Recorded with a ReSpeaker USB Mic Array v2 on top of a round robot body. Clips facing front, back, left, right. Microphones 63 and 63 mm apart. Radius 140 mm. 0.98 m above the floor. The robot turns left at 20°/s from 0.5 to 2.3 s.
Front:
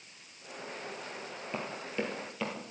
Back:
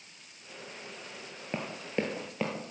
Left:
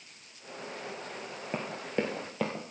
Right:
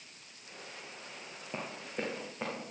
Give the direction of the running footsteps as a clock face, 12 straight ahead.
8 o'clock.